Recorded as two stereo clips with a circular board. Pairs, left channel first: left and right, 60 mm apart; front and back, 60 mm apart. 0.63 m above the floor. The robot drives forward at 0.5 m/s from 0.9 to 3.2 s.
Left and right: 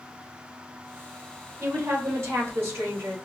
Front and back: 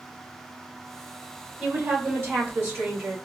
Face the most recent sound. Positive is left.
turn(degrees=-135)